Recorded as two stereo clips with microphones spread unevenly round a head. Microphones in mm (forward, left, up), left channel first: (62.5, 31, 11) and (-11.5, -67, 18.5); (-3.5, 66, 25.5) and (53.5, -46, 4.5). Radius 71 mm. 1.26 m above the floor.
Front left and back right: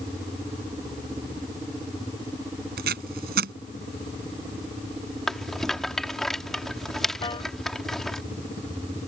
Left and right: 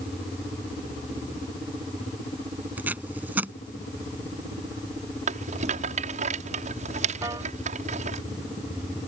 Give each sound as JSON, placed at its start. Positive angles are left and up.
{"t": 2.8, "sound": "tape being pulled", "azimuth_deg": -145}
{"t": 5.3, "sound": "a rattle", "azimuth_deg": -35}
{"t": 7.2, "sound": "a piano", "azimuth_deg": 0}